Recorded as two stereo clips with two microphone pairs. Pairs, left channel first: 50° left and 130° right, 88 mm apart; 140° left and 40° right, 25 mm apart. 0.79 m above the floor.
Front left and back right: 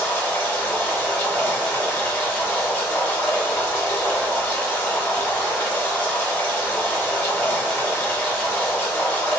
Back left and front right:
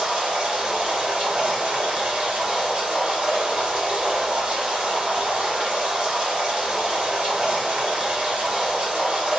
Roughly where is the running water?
Ahead.